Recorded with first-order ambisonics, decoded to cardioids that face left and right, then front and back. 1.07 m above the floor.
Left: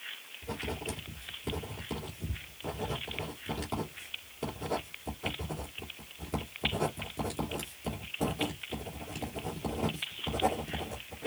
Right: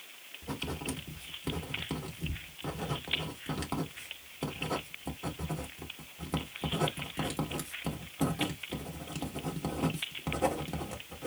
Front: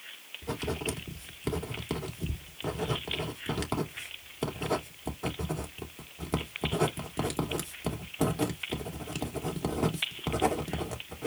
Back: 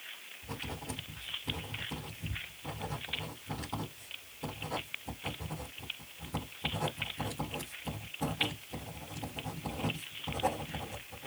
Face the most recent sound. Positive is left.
turn(degrees=-15)